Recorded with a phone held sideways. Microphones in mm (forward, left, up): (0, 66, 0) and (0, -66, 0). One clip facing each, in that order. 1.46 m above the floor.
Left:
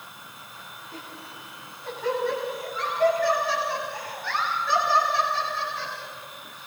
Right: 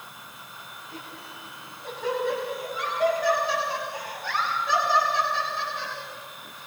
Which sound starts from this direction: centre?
Laughter, at 0.9 s.